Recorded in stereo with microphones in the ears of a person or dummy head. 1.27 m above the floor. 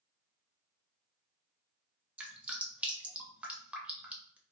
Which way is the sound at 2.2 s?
5° right (ahead or behind).